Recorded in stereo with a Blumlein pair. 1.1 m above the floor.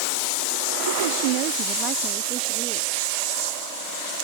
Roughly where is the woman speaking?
Right.